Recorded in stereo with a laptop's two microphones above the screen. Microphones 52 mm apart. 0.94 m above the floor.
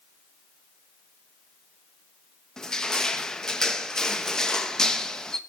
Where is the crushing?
10° left (ahead or behind), 1.1 m.